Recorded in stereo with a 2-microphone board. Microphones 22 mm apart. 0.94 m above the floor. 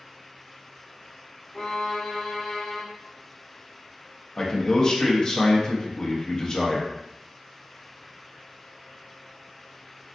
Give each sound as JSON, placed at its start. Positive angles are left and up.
{"t": 1.5, "sound": "a violin", "side_deg": 20, "distance_m": 0.6}
{"t": 4.4, "sound": "a man speaking", "side_deg": 30, "distance_m": 0.7}